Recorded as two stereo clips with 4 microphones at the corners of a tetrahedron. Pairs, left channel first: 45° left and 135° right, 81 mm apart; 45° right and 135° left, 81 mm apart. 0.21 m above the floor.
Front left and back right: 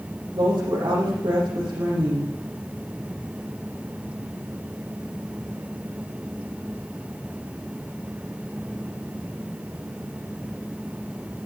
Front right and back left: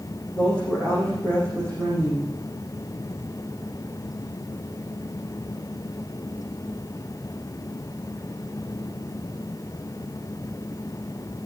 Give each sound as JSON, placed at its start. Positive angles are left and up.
{"t": 0.3, "sound": "a woman speaking", "azimuth_deg": -110, "distance_m": 5.5}